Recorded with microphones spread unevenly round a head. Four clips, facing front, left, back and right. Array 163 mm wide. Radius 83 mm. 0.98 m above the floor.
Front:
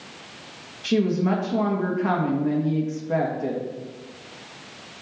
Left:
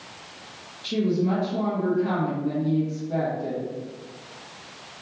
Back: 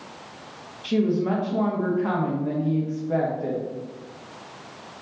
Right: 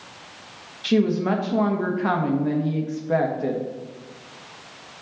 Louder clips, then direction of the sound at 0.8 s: Right 3 dB, front 1 dB; 60° right.